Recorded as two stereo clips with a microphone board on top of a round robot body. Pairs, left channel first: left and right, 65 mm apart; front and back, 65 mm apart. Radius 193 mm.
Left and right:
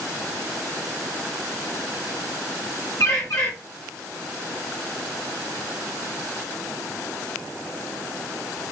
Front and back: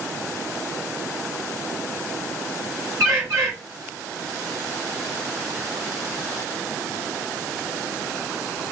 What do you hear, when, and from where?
3.0 s a bird: 135° left, 0.6 m